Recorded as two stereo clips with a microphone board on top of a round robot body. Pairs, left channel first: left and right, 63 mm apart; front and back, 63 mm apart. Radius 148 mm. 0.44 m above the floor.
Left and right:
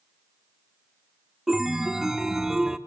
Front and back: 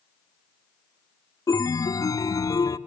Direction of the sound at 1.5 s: 5° right.